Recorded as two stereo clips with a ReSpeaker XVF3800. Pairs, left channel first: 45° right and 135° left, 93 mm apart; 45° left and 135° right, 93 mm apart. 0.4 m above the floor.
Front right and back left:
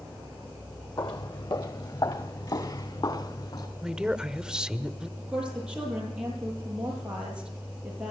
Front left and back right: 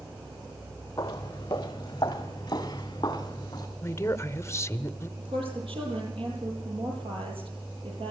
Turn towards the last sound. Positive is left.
turn(degrees=-150)